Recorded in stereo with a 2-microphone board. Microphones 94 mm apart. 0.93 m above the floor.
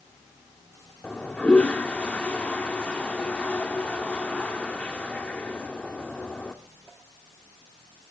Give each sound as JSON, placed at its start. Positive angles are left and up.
{"t": 1.0, "sound": "a toilet flushing", "side_deg": 15, "distance_m": 1.4}